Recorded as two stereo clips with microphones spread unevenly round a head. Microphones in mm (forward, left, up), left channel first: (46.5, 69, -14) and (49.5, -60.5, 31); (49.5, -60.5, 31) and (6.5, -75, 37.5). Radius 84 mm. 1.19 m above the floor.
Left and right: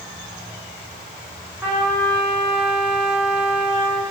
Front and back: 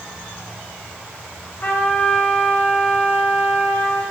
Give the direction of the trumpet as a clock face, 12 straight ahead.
12 o'clock.